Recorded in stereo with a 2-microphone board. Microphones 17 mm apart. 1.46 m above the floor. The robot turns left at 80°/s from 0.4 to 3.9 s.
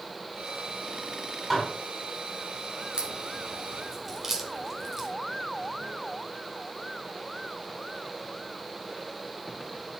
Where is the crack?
55° right (ahead or behind), 1.7 m; by 5.1 s 25° right (ahead or behind), 1.7 m.